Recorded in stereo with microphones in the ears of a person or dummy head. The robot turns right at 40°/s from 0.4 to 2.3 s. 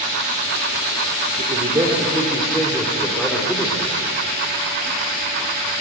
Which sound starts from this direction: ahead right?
A man speaking, at 1.4 s.